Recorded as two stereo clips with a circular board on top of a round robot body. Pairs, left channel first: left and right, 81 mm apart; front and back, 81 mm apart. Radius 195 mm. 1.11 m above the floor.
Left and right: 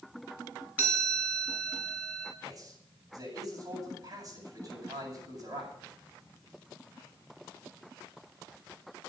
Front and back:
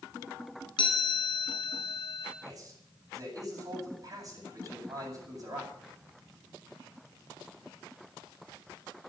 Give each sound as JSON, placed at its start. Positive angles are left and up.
{"t": 0.8, "sound": "a chime", "azimuth_deg": -20, "distance_m": 5.5}
{"t": 2.4, "sound": "a man speaking", "azimuth_deg": -130, "distance_m": 8.5}